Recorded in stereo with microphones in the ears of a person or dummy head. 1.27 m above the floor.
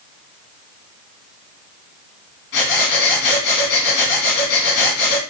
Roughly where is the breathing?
Left.